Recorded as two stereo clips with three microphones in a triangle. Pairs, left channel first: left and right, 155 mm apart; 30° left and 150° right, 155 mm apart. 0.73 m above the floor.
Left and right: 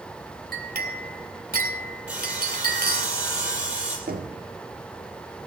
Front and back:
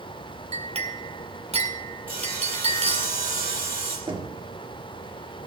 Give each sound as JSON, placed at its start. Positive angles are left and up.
{"t": 0.5, "sound": "a clink", "azimuth_deg": -100, "distance_m": 2.0}
{"t": 2.1, "sound": "sawing", "azimuth_deg": -175, "distance_m": 6.0}
{"t": 4.1, "sound": "knocking", "azimuth_deg": -95, "distance_m": 1.8}